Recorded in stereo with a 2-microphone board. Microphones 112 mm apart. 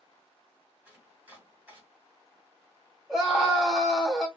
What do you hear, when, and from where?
0.8 s chopping: 15° right (ahead or behind), 1.5 m
3.1 s a scream: 5° right (ahead or behind), 1.6 m